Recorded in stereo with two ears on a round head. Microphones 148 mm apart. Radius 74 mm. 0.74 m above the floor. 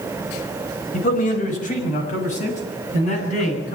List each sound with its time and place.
0.9 s a man speaking: 55° left (ahead or behind), 5 m; by 3.8 s 45° left (ahead or behind), 8.5 m